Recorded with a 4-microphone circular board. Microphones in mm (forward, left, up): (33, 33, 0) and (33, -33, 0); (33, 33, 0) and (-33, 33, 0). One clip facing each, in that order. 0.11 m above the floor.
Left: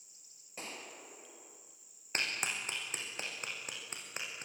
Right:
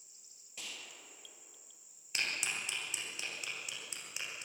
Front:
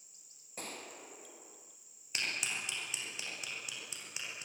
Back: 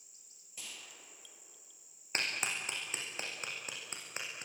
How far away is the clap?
About 6.5 m.